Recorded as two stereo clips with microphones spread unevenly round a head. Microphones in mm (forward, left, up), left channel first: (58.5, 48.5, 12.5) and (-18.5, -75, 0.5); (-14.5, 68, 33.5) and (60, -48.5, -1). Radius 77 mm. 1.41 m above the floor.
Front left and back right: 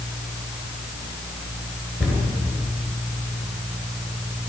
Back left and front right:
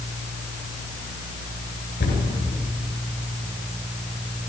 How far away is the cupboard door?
About 9 m.